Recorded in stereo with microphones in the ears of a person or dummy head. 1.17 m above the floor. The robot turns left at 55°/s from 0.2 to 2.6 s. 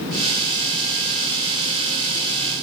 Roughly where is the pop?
No pop in this recording.